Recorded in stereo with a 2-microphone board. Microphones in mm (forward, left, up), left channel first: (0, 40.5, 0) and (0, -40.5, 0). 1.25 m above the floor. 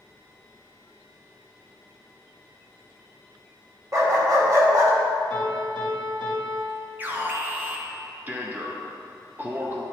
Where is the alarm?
25° right (ahead or behind), 0.9 m.